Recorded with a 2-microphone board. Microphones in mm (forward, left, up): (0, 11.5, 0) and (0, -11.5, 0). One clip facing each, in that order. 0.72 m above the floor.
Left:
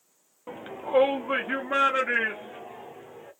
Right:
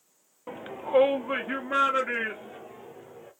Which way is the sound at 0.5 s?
10° right (ahead or behind).